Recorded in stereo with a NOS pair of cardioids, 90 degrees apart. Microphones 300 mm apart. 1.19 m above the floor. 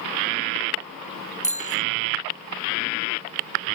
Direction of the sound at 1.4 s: 25° left.